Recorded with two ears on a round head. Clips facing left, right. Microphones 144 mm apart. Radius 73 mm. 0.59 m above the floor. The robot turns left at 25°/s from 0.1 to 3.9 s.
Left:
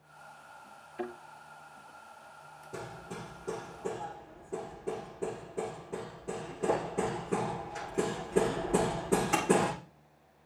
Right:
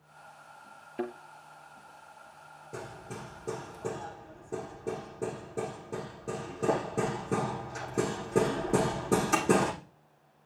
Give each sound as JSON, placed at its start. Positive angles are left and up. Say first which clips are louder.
{"t": 1.0, "sound": "a thud", "louder": "right 3 dB", "side_deg": -45, "distance_m": 5.0}
{"t": 2.7, "sound": "hammering", "louder": "even", "side_deg": -15, "distance_m": 8.5}